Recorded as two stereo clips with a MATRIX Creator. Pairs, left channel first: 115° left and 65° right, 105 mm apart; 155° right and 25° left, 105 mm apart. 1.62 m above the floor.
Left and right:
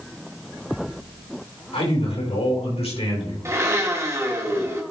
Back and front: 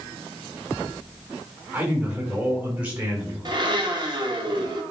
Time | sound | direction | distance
1.7 | a man speaking | 95° left | 4 m
3.5 | a blender | 10° right | 1.8 m